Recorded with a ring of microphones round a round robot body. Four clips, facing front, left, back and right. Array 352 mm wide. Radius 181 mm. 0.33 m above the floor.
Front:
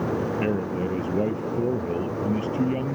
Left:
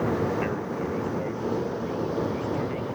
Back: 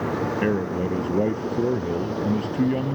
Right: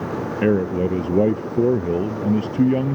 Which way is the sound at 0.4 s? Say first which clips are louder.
Right 10 dB, back 2 dB; 95° right.